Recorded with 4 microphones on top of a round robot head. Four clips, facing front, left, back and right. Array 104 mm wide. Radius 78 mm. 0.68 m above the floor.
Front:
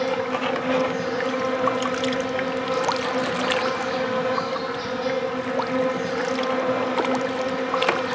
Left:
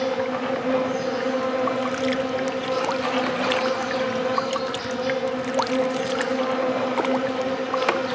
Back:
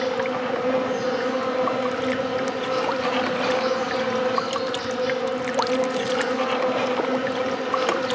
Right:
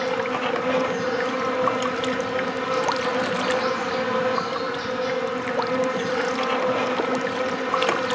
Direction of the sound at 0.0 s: 90° right.